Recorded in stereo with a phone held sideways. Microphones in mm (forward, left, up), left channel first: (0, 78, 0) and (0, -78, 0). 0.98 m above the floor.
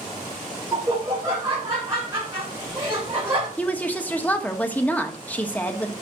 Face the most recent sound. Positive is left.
turn(degrees=10)  # may be behind; listen again after turning